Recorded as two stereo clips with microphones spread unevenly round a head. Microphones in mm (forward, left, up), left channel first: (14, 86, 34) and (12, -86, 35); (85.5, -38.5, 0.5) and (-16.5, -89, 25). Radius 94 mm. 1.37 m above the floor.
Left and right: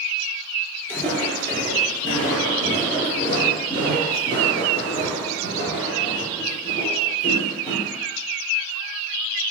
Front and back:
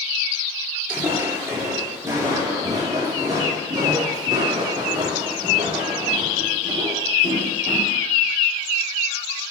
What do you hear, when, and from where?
0.9 s footsteps: 155° left, 1.4 m; by 7.9 s 150° left, 5 m